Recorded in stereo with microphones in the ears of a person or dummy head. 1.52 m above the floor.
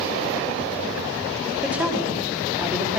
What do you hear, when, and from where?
1.6 s a woman speaking: 10° right (ahead or behind), 4 m